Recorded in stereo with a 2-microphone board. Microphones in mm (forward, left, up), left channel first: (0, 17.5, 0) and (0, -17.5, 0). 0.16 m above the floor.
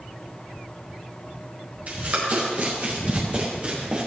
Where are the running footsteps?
45° right (ahead or behind), 6 m; by 4.1 s 35° right (ahead or behind), 5 m.